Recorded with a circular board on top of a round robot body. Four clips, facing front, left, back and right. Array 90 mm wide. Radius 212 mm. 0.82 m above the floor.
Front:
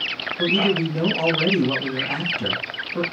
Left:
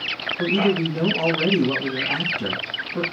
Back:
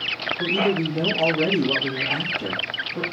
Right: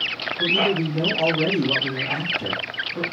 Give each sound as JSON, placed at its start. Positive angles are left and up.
{"t": 0.4, "sound": "a man speaking", "azimuth_deg": 35, "distance_m": 1.8}